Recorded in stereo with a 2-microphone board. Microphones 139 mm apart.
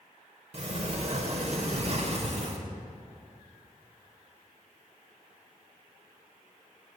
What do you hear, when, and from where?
0.5 s a sliding door: 50° right (ahead or behind), 0.6 m